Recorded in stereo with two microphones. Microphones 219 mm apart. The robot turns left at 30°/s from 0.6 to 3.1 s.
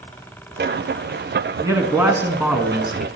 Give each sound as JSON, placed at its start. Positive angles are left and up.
{"t": 1.6, "sound": "a man speaking", "side_deg": -15, "distance_m": 1.3}